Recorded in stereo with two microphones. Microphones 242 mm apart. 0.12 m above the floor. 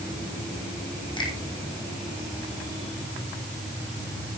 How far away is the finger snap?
About 4 m.